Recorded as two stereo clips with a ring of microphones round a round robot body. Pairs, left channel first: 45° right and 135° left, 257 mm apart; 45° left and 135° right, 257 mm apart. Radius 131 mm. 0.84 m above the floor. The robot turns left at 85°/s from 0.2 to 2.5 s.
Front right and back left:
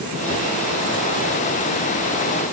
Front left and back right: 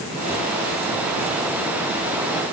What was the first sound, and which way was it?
Only background noise.